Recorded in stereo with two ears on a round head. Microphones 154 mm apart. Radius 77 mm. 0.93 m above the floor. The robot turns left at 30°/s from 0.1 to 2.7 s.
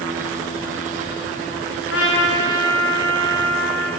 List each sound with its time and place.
1.9 s a trumpet: 80° left, 8 m; by 3.9 s 75° left (ahead or behind), 8 m